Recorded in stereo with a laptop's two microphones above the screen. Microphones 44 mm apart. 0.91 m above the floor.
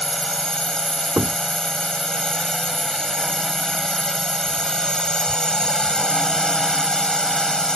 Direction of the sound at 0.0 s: 20° left (ahead or behind).